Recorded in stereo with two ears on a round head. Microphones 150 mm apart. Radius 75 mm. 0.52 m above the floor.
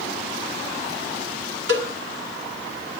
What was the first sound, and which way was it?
A cowbell, 70° right (ahead or behind).